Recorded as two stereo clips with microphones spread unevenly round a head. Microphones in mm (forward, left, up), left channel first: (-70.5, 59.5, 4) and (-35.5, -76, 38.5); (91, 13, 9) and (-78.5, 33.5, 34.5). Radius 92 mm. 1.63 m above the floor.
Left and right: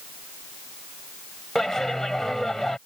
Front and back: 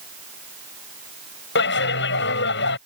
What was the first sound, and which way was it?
A clap, 15° left.